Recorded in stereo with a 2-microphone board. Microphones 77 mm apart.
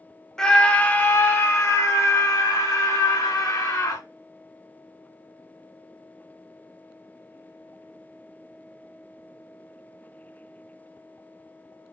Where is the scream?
10° left (ahead or behind), 0.8 m; by 4.0 s 50° left (ahead or behind), 3 m.